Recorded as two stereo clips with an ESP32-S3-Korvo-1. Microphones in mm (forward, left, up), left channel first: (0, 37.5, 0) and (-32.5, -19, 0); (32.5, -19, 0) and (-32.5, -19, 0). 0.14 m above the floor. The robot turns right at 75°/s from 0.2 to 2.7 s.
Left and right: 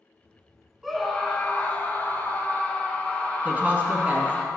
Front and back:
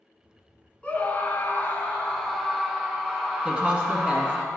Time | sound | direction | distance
0.8 | a scream | 35° right | 1.3 m
3.5 | a woman speaking | 135° right | 1.6 m